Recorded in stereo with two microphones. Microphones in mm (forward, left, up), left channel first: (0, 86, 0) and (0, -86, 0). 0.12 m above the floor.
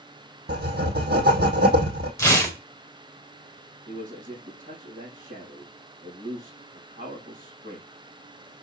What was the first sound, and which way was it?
Writing, 75° right (ahead or behind).